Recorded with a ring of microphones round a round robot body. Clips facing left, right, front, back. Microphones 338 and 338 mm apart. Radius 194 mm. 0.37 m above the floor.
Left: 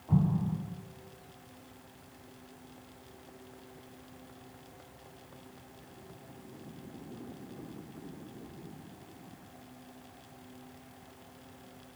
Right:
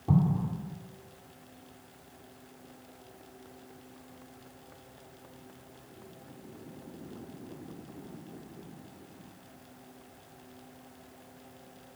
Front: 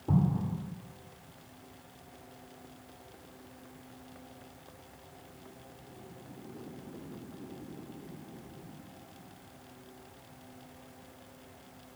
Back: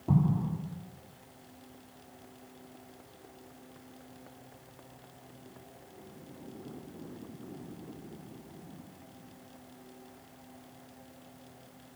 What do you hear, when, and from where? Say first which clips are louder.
0.1 s an explosion: right 2 dB, back 1 dB; 100° right, 2.5 m